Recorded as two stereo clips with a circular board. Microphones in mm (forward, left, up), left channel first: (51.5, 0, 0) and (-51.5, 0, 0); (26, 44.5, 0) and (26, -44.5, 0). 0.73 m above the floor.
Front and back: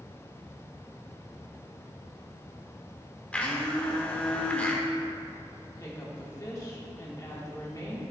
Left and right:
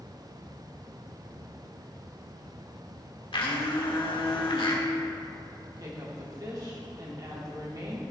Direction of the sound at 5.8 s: 50° right.